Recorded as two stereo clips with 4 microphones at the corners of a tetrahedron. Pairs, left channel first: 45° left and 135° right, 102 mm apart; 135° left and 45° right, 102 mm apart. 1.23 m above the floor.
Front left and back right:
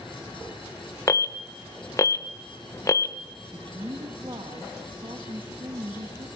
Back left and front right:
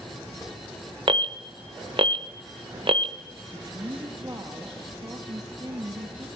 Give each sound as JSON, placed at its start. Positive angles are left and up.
{"t": 1.1, "sound": "an alarm", "azimuth_deg": -15, "distance_m": 0.8}
{"t": 3.5, "sound": "a woman speaking", "azimuth_deg": -100, "distance_m": 1.6}